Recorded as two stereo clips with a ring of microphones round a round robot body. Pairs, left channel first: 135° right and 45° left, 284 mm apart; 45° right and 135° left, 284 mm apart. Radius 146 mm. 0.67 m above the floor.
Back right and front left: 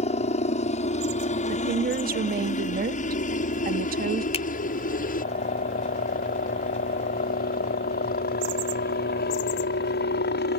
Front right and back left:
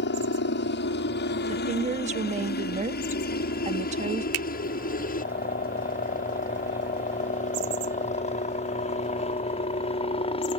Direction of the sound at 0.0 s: 75° right.